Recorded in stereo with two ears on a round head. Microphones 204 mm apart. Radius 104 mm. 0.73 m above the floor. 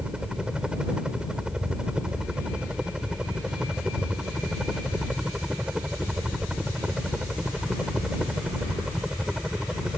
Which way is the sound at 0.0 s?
5° right (ahead or behind).